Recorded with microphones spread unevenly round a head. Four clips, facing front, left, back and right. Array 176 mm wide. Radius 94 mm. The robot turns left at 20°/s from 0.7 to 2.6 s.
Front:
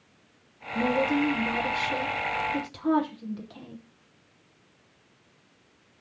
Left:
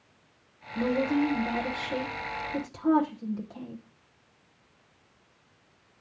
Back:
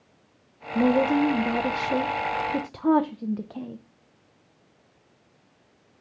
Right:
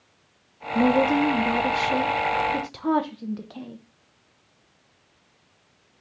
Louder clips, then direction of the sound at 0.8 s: Right 6 dB, back 4 dB; 125° right.